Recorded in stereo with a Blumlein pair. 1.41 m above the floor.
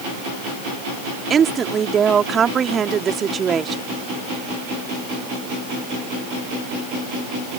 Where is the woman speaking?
20° right.